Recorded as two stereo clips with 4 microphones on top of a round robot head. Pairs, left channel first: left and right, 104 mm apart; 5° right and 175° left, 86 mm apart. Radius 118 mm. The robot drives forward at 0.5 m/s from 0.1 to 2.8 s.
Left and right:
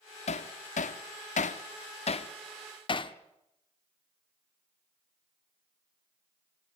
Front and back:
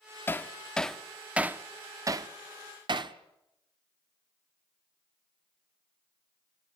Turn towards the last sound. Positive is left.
turn(degrees=135)